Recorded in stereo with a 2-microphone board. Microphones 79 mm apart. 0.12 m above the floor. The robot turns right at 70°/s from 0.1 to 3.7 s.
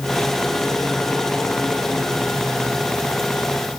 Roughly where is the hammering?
I don't hear hammering.